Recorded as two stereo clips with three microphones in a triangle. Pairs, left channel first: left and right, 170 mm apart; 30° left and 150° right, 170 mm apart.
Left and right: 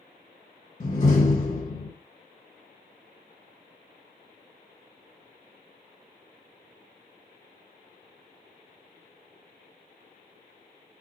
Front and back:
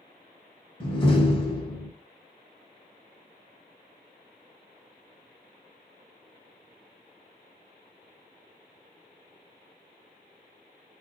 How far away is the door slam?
About 1.0 m.